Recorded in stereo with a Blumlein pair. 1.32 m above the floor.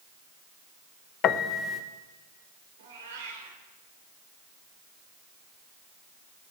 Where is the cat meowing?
60° right, 2.5 m.